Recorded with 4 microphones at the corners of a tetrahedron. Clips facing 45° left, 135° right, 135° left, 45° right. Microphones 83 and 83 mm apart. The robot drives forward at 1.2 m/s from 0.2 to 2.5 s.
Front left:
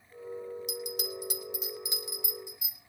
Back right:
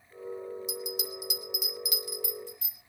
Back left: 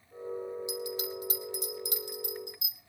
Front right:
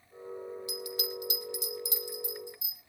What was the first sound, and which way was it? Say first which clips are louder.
A bell: even, back left 2 dB; 70° left.